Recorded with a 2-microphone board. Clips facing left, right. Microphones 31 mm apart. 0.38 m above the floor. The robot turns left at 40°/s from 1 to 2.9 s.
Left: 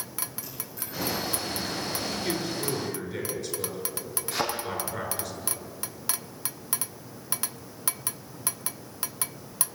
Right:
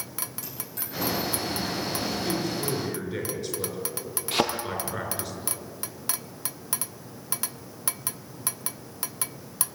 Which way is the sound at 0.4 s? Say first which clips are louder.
Right 1 dB; 60° right (ahead or behind).